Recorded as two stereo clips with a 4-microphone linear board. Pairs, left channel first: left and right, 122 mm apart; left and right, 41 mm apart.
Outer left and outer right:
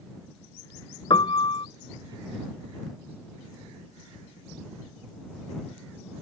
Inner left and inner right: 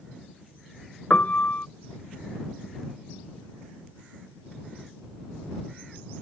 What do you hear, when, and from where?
1.1 s a piano: 45° left (ahead or behind)